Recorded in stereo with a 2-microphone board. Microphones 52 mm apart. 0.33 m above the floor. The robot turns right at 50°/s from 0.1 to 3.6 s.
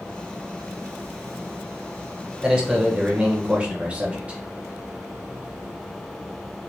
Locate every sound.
2.4 s a man speaking: 15° right (ahead or behind), 1.5 m; by 4.4 s 25° right (ahead or behind), 1.5 m